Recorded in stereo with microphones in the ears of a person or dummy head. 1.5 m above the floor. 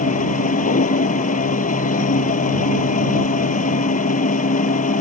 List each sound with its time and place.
0.0 s a machine running: 40° left (ahead or behind)